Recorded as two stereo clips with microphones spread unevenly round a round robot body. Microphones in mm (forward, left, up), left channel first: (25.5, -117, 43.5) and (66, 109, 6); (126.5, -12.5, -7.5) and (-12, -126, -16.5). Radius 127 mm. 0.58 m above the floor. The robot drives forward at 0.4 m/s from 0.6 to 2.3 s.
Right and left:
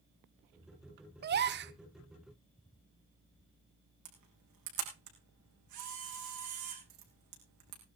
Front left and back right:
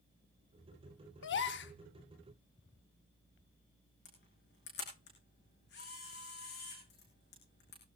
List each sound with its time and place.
1.2 s a gasp: 45° left, 1.0 m; by 1.7 s 55° left, 0.9 m
4.0 s a camera shutter: 90° left, 5.5 m